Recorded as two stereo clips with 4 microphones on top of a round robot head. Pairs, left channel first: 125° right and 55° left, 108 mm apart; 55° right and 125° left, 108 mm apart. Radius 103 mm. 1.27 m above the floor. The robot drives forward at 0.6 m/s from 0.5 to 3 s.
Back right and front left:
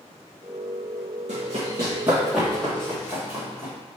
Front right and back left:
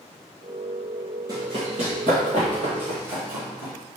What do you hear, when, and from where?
1.3 s running footsteps: 70° left, 1.6 m; by 3.7 s 170° left, 3 m